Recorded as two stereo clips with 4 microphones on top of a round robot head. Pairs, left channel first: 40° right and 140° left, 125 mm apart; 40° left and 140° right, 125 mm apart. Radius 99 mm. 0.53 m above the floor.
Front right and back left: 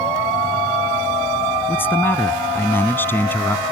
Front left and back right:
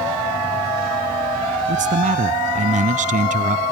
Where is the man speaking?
115° right.